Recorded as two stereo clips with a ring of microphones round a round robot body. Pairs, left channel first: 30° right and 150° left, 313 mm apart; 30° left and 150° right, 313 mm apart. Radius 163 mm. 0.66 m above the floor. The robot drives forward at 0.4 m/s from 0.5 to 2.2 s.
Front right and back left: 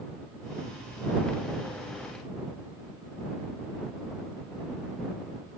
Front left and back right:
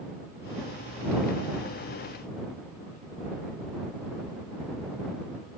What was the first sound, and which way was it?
Only background noise.